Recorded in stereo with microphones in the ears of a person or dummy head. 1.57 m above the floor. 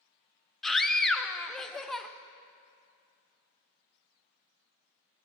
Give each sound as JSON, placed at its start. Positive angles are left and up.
{"t": 0.6, "sound": "a scream", "side_deg": 0, "distance_m": 0.6}